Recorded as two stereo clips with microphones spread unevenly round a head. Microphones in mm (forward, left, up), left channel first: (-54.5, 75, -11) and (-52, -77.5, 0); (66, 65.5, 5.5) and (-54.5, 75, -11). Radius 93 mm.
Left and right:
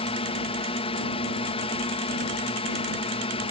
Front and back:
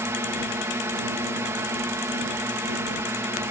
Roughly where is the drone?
Behind left.